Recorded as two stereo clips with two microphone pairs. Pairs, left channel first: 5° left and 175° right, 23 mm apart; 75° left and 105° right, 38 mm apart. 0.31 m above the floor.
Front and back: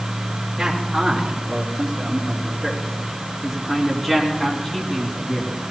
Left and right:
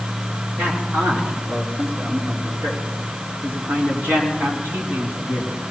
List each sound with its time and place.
0.6 s a man speaking: 130° right, 4.5 m; by 5.6 s 80° right, 3.5 m